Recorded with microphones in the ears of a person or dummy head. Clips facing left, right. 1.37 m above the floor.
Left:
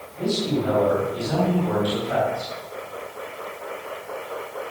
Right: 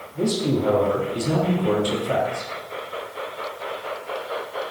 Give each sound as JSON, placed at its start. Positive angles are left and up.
{"t": 0.1, "sound": "a man speaking", "side_deg": -75, "distance_m": 3.0}